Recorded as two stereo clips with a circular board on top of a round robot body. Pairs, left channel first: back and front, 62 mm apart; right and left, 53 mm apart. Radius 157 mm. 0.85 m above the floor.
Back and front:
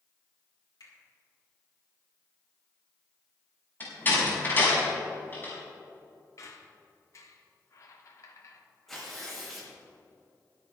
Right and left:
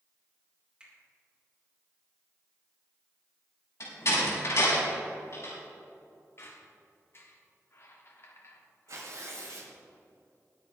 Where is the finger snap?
165° left, 4.5 m.